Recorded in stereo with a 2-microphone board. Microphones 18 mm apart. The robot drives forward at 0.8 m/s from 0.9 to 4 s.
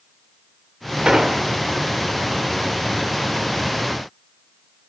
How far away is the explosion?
About 1.6 m.